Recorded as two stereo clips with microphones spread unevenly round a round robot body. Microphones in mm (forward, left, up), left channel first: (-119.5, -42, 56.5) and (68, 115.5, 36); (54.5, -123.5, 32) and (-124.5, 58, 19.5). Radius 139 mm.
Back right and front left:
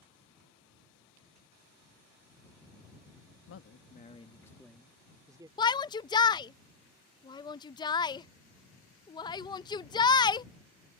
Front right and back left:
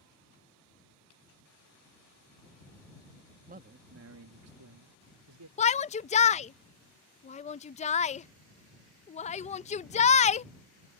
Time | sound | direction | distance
3.5 | a man speaking | 170° right | ?
5.6 | a shout | 80° right | ?